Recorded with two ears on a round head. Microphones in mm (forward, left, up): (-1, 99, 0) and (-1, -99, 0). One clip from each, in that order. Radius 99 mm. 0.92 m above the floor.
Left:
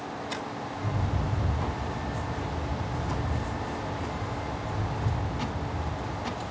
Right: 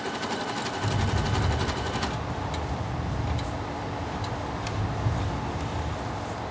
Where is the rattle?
Centre (ahead or behind), 2 m.